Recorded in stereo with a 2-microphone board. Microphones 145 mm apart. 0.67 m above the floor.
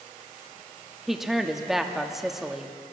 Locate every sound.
1.1 s a woman speaking: 5° right (ahead or behind), 0.9 m